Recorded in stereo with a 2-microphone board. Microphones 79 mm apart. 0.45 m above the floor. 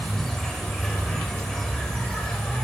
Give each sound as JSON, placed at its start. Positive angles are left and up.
{"t": 0.0, "sound": "an insect", "side_deg": 10, "distance_m": 0.8}